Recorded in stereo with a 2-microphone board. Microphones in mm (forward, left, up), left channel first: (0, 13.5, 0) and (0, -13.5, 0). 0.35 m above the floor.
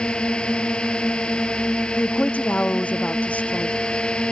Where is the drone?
30° left (ahead or behind).